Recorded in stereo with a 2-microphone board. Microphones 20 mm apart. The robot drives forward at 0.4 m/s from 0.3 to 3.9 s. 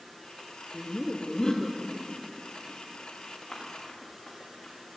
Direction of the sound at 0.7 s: 40° left (ahead or behind).